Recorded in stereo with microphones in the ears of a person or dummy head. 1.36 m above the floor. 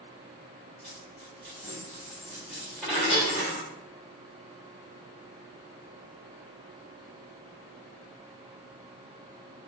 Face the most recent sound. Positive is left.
turn(degrees=65)  # may be behind; listen again after turning